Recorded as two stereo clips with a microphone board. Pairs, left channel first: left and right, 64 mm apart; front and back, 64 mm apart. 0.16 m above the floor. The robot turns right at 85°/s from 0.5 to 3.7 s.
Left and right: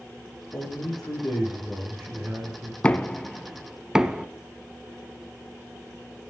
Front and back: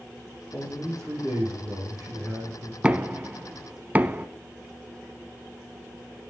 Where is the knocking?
135° left, 0.8 m; by 4.2 s 155° right, 0.8 m.